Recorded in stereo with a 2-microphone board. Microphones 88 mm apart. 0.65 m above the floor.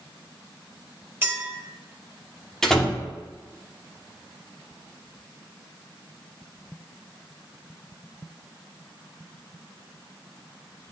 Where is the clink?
25° right (ahead or behind), 1.5 m.